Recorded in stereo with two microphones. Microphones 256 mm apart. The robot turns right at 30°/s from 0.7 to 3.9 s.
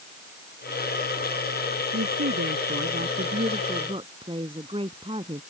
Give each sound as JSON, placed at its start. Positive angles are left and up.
{"t": 1.9, "sound": "a woman speaking", "azimuth_deg": -80}